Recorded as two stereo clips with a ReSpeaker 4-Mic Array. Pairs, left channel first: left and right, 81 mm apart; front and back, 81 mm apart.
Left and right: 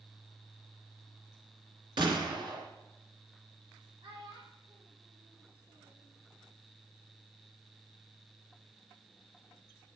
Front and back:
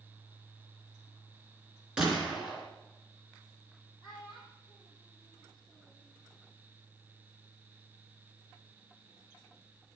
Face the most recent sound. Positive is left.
turn(degrees=-85)